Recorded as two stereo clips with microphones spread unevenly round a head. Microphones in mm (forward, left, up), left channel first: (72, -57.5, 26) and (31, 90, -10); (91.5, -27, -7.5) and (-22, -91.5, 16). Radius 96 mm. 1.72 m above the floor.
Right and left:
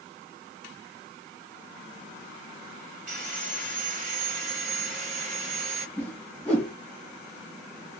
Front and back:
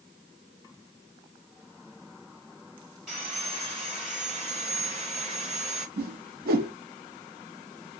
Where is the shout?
I don't hear a shout.